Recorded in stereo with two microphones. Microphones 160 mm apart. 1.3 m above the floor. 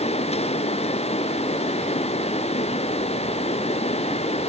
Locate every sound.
Only background noise.